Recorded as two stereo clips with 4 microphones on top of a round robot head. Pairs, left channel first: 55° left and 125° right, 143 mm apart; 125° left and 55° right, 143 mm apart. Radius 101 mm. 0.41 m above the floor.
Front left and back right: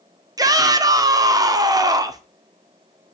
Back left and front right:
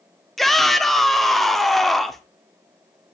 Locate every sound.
0.4 s a shout: 145° right, 0.9 m